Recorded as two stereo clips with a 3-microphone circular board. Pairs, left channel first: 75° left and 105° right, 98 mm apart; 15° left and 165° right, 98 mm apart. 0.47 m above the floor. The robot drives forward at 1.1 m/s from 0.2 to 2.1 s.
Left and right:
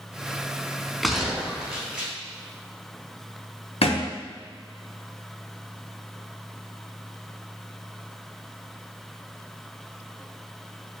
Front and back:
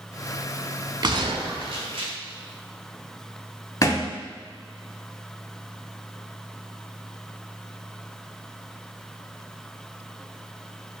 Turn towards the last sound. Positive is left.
turn(degrees=70)